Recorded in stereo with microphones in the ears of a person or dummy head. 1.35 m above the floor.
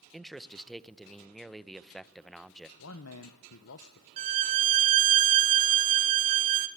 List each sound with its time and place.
0.1 s a man speaking: centre (ahead or behind), 0.9 m
2.8 s a man speaking: 80° left, 1.2 m
4.2 s a violin: 40° right (ahead or behind), 1.1 m